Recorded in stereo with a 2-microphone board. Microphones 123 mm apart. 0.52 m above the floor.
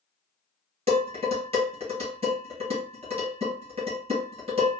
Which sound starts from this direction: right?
Dishes clattering, at 0.9 s.